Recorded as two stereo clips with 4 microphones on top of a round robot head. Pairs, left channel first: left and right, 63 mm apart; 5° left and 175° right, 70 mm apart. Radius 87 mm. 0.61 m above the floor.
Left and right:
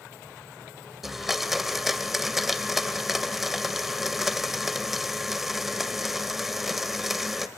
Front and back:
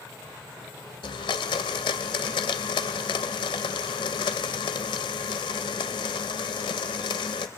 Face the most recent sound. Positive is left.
turn(degrees=-5)